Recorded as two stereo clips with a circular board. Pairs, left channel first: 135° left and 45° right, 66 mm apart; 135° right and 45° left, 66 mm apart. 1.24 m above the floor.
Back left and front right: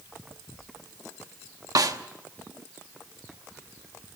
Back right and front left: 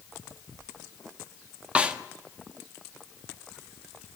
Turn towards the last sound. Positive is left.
turn(degrees=-25)